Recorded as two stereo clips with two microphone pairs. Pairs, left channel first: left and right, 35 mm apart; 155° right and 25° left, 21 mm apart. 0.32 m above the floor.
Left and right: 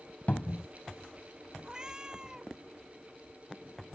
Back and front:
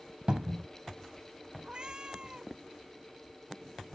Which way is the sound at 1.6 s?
20° right.